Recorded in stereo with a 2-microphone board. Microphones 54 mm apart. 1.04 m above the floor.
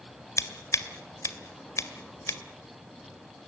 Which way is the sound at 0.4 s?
70° left (ahead or behind).